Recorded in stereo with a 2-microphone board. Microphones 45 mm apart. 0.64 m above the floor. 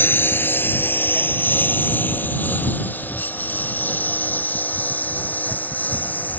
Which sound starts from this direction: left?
A lawn mower, at 0.0 s.